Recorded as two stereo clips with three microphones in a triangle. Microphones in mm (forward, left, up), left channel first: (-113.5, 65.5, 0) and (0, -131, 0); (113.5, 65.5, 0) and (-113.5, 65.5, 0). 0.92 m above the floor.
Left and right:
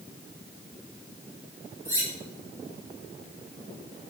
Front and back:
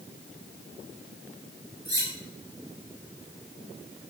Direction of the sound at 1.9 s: 140° right.